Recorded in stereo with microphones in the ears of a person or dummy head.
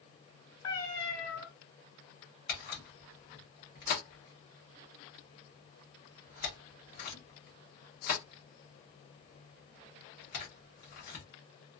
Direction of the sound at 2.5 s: 45° left (ahead or behind).